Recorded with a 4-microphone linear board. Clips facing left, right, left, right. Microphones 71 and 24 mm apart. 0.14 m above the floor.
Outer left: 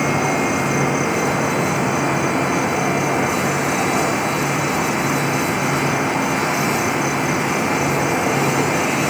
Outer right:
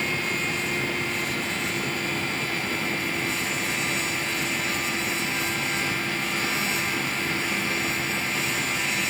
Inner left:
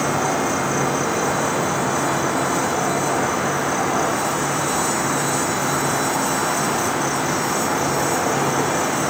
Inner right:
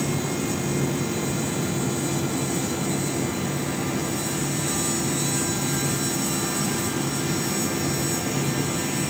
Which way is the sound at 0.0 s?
80° left.